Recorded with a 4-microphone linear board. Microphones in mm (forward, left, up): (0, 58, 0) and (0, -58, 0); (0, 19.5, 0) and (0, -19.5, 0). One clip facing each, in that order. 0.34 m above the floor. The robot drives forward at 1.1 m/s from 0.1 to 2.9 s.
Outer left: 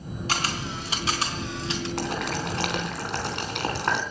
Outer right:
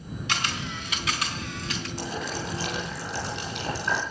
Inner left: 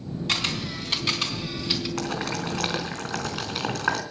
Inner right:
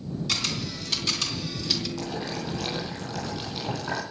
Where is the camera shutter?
35° left (ahead or behind), 3 m; by 1.9 s 25° left (ahead or behind), 4 m.